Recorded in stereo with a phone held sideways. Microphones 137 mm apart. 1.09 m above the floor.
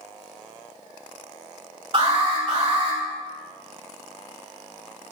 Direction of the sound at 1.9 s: 40° right (ahead or behind).